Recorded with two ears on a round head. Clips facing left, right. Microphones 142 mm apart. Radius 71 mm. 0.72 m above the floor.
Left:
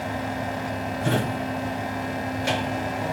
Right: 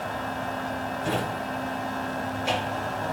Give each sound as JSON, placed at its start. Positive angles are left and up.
{"t": 1.0, "sound": "a drawer", "side_deg": 60, "distance_m": 3.0}